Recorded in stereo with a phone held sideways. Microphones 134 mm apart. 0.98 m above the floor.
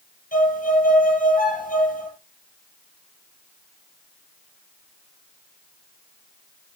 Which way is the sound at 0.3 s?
80° left.